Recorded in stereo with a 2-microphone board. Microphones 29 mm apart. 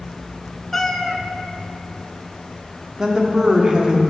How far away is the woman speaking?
About 0.8 m.